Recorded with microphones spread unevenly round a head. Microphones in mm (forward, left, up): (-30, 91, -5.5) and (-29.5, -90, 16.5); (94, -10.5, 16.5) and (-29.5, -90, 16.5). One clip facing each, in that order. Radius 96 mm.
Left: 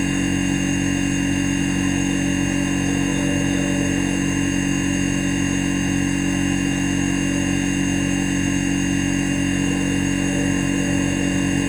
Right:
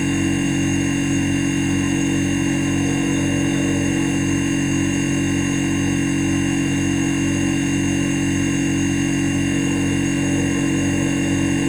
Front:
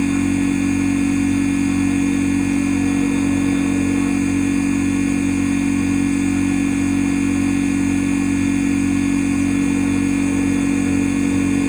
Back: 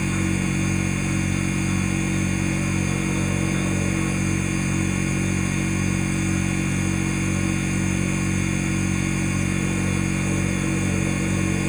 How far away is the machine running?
About 1.3 m.